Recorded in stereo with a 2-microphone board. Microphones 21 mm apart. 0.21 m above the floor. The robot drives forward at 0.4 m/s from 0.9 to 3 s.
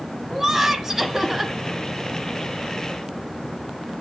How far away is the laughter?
About 1.4 m.